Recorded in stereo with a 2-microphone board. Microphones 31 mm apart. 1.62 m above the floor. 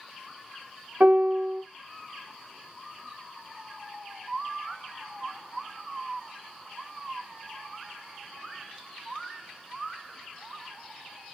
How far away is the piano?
About 0.5 m.